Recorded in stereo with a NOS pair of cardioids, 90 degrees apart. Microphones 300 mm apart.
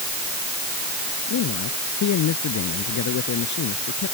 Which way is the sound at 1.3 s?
70° left.